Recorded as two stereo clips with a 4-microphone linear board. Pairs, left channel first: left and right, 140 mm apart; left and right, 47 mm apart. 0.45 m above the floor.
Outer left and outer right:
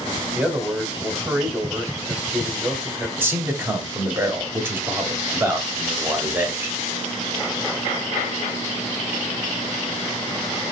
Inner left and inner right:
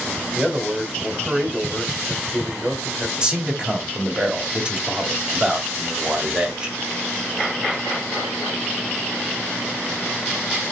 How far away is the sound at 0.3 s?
About 1.6 m.